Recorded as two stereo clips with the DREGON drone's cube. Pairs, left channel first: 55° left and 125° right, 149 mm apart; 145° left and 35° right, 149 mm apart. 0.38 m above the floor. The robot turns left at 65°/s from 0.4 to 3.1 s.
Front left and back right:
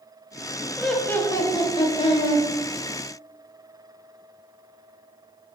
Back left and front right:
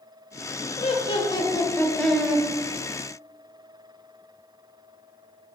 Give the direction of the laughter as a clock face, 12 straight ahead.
7 o'clock.